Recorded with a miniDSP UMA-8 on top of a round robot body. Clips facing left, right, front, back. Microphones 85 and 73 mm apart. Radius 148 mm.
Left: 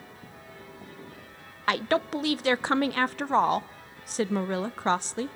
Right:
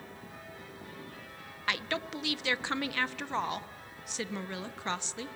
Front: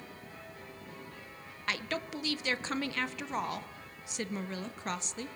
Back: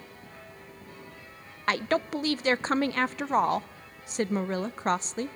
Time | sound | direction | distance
1.7 | a woman speaking | 135° left | 0.5 m